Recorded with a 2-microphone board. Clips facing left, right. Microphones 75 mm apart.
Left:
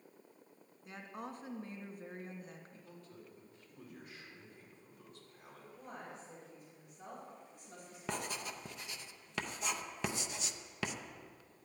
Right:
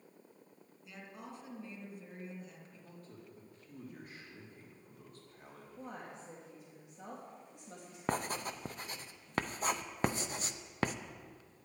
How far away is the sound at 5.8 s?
About 3 m.